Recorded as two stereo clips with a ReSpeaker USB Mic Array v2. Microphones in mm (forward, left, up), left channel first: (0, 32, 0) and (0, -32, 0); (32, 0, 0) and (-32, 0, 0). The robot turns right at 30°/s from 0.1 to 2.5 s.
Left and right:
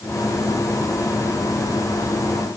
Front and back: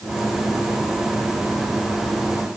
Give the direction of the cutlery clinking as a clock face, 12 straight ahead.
No cutlery clinking in this recording.